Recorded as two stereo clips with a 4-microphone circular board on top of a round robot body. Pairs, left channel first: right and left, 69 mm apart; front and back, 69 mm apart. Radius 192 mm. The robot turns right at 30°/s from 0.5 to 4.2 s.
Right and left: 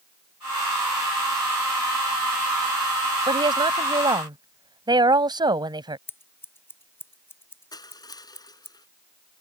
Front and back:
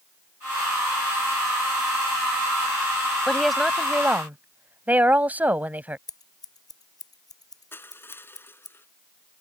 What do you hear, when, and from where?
3.3 s a woman speaking: 85° left; by 6.0 s 110° left
6.1 s scissors: 30° right
7.7 s crushing: 60° right